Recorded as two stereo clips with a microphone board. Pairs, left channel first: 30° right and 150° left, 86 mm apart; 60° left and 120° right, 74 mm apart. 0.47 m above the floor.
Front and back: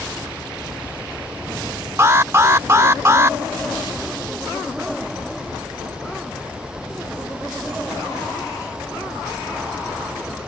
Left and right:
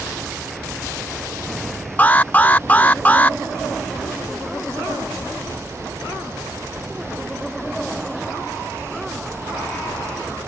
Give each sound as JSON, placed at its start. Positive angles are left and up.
{"t": 2.0, "sound": "an alarm", "azimuth_deg": 115}